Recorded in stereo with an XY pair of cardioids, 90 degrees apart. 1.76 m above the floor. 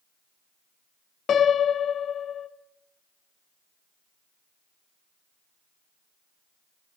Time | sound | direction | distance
1.3 | a piano | 65° left | 1.0 m